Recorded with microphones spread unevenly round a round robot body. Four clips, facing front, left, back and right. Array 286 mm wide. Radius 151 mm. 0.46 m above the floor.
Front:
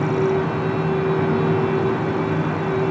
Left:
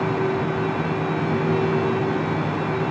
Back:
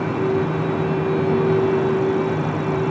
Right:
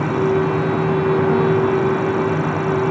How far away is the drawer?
I don't hear a drawer.